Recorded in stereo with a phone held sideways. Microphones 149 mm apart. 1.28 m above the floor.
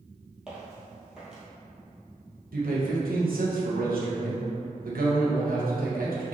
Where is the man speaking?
75° right (ahead or behind), 1.1 m.